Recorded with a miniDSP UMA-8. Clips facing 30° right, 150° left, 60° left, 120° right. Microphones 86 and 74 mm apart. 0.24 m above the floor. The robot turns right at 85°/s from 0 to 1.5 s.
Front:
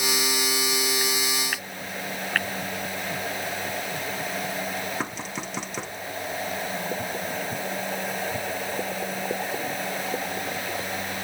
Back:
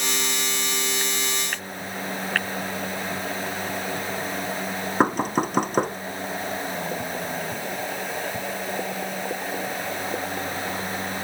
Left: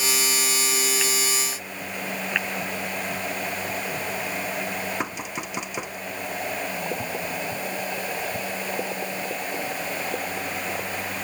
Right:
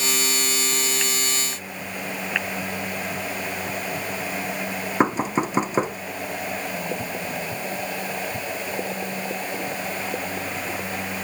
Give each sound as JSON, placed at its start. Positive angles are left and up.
{"t": 5.0, "sound": "knocking", "azimuth_deg": -170}